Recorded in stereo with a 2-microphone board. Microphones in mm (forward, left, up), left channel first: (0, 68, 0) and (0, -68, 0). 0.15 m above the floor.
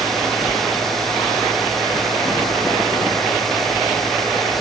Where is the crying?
No crying in this recording.